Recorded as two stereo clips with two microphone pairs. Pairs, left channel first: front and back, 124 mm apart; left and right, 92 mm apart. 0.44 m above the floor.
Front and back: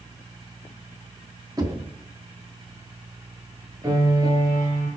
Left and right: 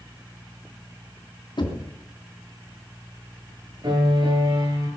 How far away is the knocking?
About 3 m.